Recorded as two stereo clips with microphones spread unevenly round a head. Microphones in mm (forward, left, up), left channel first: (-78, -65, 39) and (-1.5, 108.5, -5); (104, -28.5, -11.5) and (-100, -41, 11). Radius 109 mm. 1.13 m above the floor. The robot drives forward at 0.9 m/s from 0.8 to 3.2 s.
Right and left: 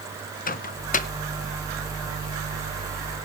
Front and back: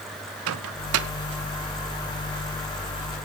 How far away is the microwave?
About 0.8 m.